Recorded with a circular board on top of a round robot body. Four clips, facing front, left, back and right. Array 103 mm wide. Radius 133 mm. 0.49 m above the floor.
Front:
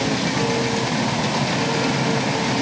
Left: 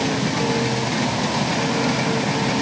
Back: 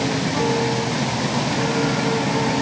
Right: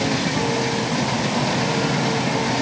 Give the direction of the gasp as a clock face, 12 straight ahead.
I don't hear a gasp.